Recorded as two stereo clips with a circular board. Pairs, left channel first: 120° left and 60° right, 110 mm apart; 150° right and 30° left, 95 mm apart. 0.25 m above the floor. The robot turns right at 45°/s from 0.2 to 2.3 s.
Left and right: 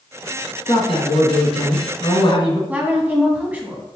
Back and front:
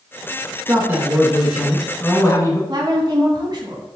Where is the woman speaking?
10° left, 2.5 m.